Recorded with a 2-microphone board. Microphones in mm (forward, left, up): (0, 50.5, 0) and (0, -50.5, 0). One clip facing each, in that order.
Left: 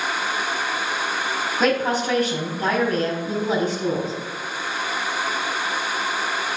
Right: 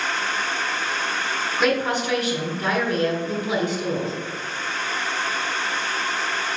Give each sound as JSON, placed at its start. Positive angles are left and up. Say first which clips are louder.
{"t": 1.6, "sound": "a woman speaking", "louder": "left 1 dB", "side_deg": 35, "distance_m": 4.5}